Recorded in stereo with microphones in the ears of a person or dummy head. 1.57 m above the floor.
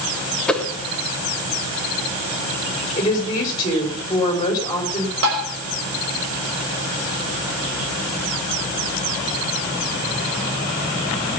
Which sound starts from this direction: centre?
A whoosh, at 0.5 s.